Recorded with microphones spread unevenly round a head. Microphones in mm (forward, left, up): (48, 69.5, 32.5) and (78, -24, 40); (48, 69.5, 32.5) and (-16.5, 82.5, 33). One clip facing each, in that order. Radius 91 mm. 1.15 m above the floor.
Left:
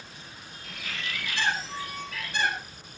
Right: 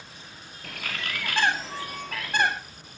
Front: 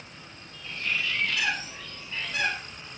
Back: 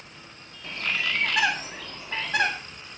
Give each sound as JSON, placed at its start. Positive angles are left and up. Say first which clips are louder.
{"t": 0.6, "sound": "a bird", "louder": "right 3 dB, back 2 dB", "azimuth_deg": -130, "distance_m": 2.0}